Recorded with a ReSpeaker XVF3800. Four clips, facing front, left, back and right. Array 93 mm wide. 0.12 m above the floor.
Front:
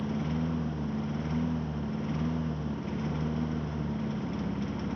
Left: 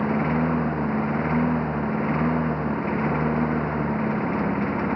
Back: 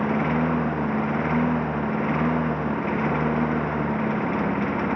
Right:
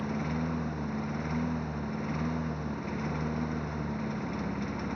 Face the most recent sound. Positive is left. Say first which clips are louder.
# left 10 dB, back 10 dB
turn(degrees=140)